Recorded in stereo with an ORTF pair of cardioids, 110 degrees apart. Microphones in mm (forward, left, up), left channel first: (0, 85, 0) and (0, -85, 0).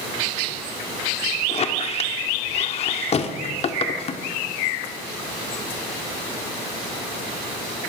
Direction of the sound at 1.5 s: 40° left.